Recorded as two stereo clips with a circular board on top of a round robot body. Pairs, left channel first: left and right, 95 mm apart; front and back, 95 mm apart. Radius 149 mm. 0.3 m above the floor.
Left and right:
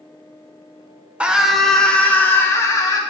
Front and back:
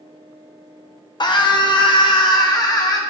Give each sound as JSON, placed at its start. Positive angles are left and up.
{"t": 1.2, "sound": "a scream", "azimuth_deg": -15, "distance_m": 1.4}